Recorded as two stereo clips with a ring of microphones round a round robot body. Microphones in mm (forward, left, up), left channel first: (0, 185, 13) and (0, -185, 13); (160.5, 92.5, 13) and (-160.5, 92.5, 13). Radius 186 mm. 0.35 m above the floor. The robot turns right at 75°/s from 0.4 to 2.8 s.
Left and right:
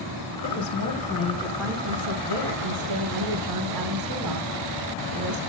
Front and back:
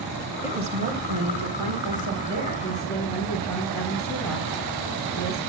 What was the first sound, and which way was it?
A woman speaking, 95° left.